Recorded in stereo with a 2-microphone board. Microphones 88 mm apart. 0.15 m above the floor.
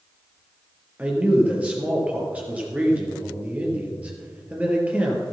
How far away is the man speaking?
About 3.5 m.